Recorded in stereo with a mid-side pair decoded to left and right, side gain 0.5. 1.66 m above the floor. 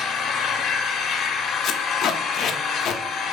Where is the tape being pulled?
65° left, 0.6 m.